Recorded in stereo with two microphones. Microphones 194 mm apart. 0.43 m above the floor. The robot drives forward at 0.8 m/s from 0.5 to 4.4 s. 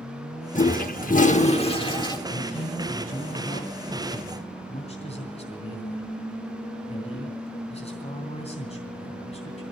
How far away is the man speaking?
About 1.9 m.